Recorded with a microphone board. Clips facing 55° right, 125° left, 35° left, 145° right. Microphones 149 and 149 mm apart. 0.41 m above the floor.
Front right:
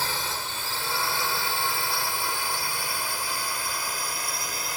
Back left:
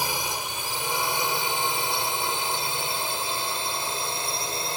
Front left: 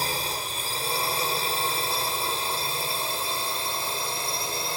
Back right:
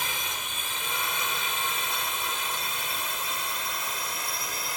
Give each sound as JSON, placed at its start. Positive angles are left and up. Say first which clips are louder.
{"t": 0.0, "sound": "a drone", "louder": "back left 2 dB, front left 5 dB", "azimuth_deg": 60}